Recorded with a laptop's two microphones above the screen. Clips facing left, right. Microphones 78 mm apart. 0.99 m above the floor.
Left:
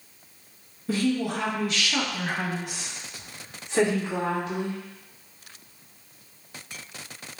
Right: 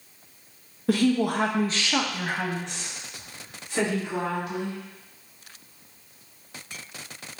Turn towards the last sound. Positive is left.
turn(degrees=30)  # may be behind; listen again after turning